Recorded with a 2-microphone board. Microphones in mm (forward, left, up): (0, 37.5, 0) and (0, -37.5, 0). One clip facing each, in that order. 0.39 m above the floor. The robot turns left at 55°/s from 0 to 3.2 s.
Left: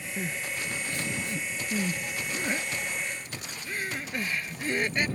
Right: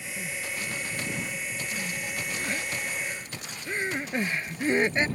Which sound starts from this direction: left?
Crying, at 0.2 s.